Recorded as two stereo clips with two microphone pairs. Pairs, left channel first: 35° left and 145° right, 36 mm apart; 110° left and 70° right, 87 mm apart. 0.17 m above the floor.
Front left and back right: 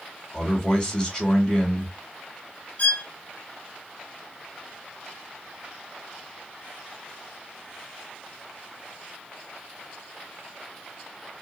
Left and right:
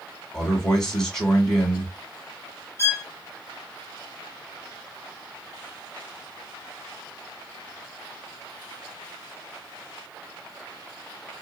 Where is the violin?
65° left, 1.0 m.